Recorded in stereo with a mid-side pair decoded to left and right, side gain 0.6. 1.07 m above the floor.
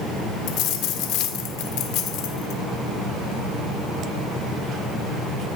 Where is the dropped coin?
70° left, 1.4 m.